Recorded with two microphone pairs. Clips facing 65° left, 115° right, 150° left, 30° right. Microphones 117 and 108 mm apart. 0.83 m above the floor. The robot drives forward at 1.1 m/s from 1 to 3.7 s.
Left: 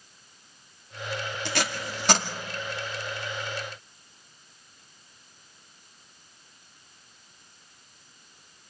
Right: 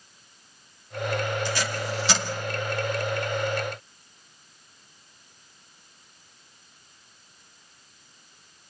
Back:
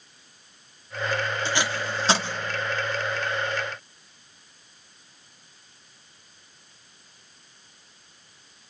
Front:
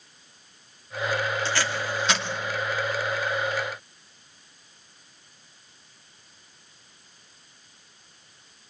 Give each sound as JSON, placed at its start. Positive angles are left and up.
{"t": 1.4, "sound": "tape being pulled", "azimuth_deg": 75, "distance_m": 2.0}